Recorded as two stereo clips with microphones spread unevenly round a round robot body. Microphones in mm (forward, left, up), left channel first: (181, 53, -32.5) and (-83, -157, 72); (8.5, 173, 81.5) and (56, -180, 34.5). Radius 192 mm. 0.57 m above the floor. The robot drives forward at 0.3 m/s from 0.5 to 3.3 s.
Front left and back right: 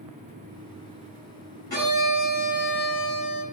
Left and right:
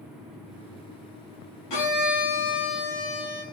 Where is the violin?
115° left, 7 m; by 3.4 s 120° left, 7 m.